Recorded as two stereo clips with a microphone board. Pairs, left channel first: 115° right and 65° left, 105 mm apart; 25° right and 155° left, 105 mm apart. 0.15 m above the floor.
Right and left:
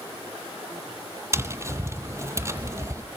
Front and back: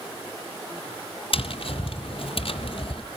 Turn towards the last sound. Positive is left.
turn(degrees=5)